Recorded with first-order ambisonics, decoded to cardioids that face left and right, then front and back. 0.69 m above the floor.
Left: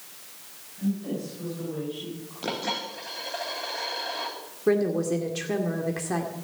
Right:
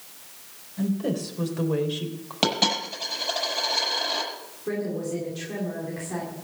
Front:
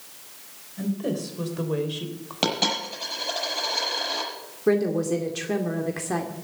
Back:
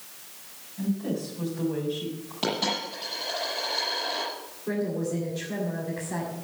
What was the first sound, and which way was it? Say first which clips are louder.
A woman speaking: right 4 dB, front 2 dB; 55° right.